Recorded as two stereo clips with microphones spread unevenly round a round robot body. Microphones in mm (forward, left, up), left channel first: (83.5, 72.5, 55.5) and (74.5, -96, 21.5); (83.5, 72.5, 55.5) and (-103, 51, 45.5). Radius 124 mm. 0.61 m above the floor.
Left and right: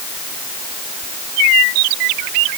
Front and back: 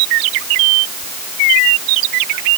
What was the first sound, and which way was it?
Only background noise.